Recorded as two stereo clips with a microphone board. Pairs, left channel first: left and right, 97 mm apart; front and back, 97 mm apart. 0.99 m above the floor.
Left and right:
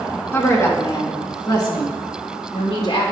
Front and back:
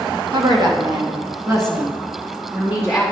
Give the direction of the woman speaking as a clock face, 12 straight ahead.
7 o'clock.